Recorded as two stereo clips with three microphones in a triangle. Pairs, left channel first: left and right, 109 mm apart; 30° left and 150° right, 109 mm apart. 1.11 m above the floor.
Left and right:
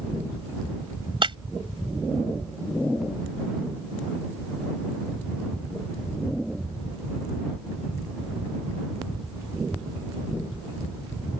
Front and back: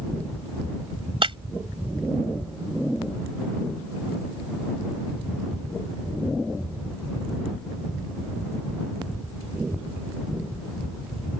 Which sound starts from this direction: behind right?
Breaking glass, at 1.2 s.